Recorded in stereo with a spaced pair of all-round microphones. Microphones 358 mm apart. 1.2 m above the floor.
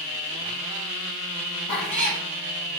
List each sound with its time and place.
1.7 s a cat meowing: 55° left (ahead or behind), 1.6 m